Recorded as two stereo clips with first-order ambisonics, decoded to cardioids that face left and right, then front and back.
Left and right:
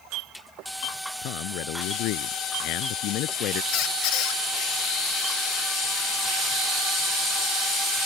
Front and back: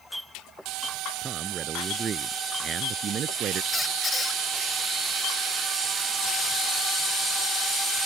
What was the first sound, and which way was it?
A man speaking, 110° left.